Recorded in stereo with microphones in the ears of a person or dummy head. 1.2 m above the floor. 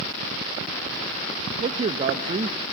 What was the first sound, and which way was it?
A man speaking, 35° right (ahead or behind).